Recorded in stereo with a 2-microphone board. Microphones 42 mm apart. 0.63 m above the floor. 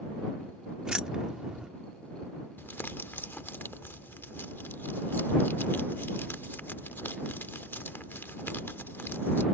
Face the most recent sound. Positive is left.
turn(degrees=60)  # may be behind; listen again after turning